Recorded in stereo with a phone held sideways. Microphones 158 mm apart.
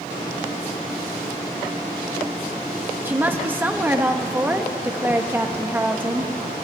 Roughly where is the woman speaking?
Centre.